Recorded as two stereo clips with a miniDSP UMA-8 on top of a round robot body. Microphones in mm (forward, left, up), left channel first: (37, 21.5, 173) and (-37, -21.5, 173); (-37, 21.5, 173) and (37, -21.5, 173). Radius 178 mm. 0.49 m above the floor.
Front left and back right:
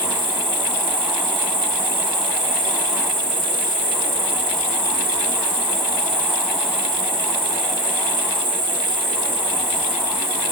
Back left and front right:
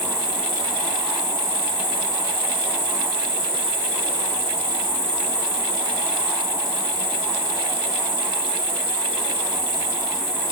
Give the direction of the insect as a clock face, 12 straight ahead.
4 o'clock.